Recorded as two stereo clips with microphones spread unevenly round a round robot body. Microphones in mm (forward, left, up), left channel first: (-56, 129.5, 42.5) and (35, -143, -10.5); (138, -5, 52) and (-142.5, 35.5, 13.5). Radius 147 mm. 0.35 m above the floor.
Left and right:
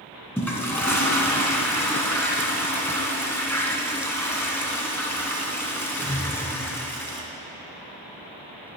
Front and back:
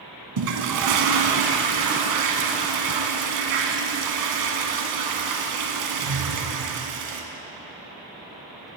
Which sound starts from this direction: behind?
A toilet flushing, at 0.4 s.